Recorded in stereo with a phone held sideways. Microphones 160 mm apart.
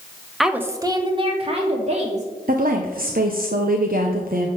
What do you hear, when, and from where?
0.4 s a woman speaking: centre (ahead or behind), 0.9 m; by 2.3 s 45° right (ahead or behind), 3 m
2.5 s a woman speaking: 65° right (ahead or behind), 0.9 m